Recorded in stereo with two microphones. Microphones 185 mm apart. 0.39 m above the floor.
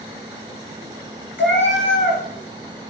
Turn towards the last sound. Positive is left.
turn(degrees=75)  # may be behind; listen again after turning